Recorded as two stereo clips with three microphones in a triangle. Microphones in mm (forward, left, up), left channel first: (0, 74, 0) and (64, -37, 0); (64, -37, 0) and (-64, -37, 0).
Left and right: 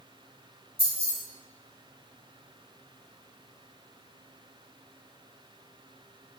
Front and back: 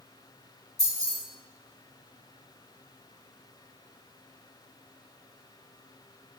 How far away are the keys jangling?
About 1.5 m.